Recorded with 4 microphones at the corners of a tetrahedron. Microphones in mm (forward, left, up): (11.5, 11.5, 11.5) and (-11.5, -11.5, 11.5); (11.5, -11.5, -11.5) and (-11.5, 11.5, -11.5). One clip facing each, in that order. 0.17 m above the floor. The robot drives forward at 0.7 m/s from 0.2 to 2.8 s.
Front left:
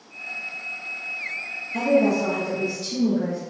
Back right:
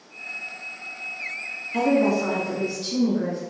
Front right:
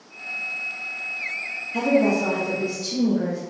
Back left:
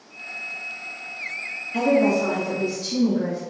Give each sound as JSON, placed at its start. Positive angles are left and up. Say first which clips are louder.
{"t": 1.7, "sound": "a woman speaking", "louder": "front left 1 dB, back left 1 dB", "azimuth_deg": -160, "distance_m": 1.8}